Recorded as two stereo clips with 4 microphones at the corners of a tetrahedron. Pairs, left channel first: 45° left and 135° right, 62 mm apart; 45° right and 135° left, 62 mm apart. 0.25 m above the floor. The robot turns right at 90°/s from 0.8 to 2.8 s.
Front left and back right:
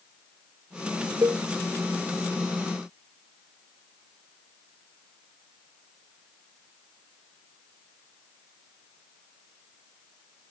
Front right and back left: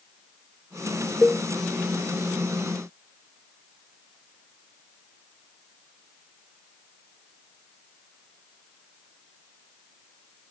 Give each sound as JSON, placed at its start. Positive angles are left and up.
{"t": 1.2, "sound": "a cowbell", "azimuth_deg": -130}